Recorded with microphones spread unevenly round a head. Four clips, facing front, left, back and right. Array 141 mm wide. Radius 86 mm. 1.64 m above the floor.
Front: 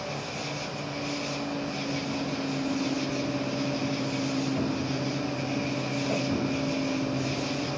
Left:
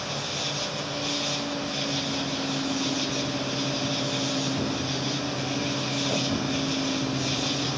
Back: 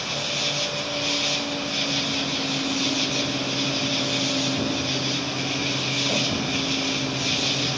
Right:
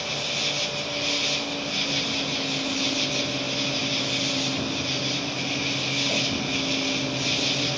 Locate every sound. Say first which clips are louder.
0.0 s an insect: right 1 dB, back 4 dB; 130° right